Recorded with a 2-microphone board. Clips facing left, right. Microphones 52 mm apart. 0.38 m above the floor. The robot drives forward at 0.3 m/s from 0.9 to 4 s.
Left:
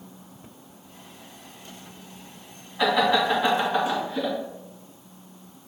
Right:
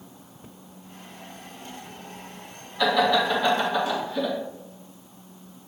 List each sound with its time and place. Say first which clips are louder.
2.8 s laughter: even; 15° left (ahead or behind), 1.6 m; by 4.3 s 10° left (ahead or behind), 1.8 m